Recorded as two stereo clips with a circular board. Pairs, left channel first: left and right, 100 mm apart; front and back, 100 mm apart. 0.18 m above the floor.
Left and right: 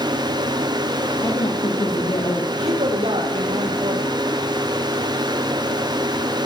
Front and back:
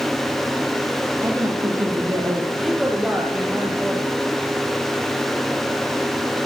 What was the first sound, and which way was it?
A woman speaking, 125° left.